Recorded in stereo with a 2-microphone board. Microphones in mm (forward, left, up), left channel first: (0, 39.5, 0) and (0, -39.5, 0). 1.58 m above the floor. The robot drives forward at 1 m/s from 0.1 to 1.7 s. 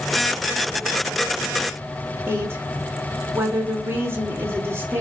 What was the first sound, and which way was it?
A woman speaking, 30° right (ahead or behind).